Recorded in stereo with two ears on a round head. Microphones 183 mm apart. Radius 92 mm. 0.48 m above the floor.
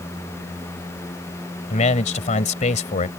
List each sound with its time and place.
1.7 s a man speaking: 35° left (ahead or behind)